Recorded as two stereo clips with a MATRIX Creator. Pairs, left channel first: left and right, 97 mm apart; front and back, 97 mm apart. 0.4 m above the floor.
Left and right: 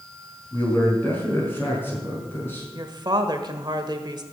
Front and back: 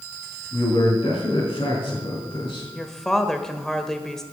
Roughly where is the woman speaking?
Right.